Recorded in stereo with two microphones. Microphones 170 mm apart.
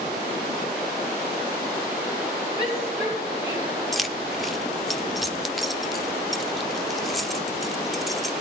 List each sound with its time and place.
2.6 s a shout: 25° left (ahead or behind), 5.5 m; by 3.7 s 45° left (ahead or behind), 6 m
3.9 s keys jangling: centre (ahead or behind), 0.6 m